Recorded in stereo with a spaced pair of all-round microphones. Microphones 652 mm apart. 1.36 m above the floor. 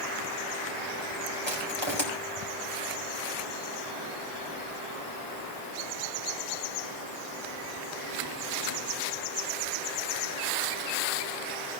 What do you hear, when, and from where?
1.5 s crushing: 40° left (ahead or behind), 4.5 m